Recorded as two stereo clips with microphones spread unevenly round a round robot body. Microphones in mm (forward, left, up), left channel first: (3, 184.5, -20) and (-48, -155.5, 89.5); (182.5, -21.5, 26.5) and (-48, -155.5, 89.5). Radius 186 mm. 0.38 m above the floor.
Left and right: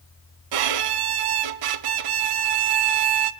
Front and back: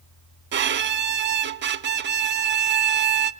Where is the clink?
No clink in this recording.